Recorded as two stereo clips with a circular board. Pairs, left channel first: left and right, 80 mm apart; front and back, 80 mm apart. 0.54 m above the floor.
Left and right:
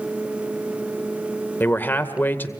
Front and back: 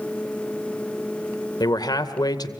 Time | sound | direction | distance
1.6 | a man speaking | 25° left | 2 m